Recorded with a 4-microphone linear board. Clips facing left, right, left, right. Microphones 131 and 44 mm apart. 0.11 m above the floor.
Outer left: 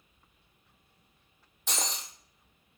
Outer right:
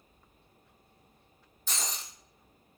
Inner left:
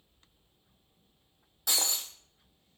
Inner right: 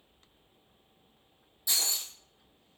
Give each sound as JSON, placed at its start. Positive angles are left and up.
{"t": 1.7, "sound": "breaking glass", "side_deg": 75, "distance_m": 0.7}